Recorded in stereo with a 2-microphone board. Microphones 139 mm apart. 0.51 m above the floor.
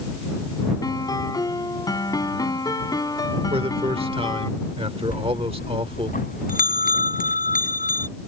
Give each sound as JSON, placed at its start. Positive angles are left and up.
{"t": 0.8, "sound": "a piano", "side_deg": 30}
{"t": 3.5, "sound": "a man speaking", "side_deg": -40}
{"t": 5.1, "sound": "a bell", "side_deg": 85}